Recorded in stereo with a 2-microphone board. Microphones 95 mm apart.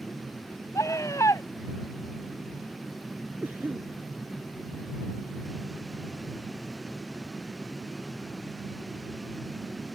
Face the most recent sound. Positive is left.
turn(degrees=-20)  # may be behind; listen again after turning